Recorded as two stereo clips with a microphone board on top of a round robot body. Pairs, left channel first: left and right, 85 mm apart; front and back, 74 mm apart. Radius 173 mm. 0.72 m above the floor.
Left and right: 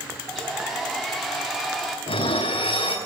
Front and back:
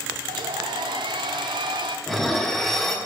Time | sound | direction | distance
0.3 | a hair dryer | straight behind | 0.5 m
2.1 | dishes clattering | 90° left | 1.3 m